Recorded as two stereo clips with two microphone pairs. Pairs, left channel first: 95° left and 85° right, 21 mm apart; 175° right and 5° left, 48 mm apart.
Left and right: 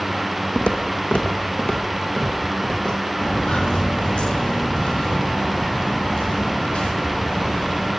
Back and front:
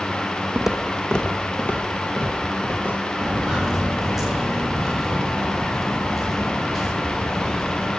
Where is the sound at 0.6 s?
80° left, 1.2 m; by 3.0 s 145° left, 4 m.